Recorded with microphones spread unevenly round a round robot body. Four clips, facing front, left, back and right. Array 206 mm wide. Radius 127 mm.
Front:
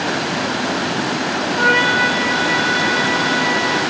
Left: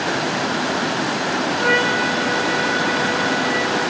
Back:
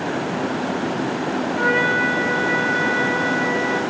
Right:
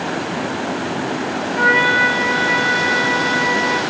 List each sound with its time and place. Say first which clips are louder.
1.6 s a trumpet: right 6 dB, front 4 dB; 130° right, 2.5 m